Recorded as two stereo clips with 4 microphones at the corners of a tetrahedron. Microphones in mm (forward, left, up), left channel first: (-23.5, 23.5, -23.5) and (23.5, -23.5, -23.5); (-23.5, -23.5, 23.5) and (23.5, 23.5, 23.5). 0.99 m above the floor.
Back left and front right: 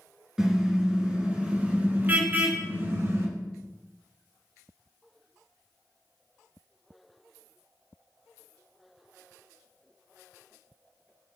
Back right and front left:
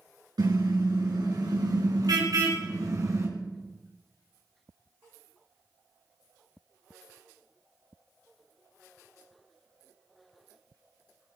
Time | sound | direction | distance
0.4 | a car horn | 35° left | 5.5 m